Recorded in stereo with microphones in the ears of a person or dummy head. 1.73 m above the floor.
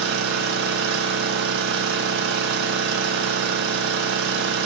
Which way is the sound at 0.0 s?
65° right (ahead or behind).